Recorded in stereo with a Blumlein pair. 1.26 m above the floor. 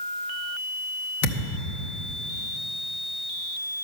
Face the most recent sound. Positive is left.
turn(degrees=50)